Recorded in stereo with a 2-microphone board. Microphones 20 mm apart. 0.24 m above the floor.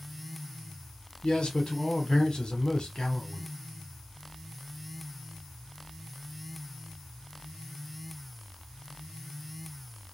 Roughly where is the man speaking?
Left.